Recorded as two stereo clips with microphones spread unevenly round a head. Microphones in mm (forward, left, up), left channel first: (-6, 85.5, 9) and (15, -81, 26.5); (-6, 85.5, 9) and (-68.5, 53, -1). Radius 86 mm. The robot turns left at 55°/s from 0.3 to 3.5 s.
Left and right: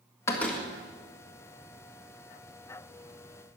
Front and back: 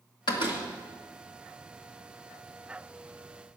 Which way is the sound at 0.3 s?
20° left.